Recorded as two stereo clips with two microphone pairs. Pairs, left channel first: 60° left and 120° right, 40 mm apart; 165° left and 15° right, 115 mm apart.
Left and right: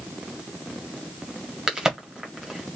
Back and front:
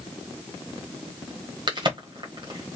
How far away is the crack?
About 1.3 m.